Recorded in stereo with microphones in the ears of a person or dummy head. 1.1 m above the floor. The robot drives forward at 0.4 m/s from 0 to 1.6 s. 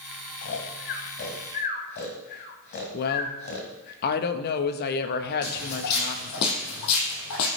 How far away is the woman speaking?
About 0.9 m.